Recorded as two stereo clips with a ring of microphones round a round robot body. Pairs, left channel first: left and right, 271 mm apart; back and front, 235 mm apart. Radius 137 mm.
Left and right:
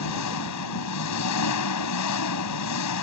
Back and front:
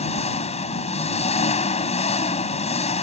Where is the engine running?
115° left.